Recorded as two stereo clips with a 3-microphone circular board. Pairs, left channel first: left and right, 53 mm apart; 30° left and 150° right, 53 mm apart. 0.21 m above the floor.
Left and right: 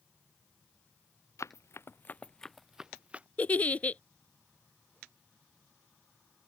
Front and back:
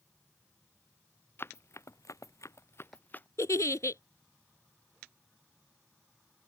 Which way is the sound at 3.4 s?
30° left.